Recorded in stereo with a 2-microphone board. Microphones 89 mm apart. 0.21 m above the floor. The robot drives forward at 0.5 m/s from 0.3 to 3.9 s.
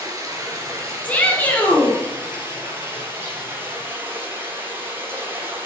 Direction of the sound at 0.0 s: 40° right (ahead or behind).